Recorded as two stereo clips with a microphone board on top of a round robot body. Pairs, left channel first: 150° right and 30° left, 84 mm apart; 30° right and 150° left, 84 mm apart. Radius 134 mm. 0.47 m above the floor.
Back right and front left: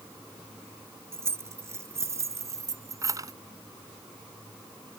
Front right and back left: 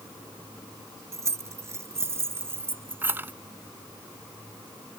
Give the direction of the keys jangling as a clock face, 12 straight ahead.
9 o'clock.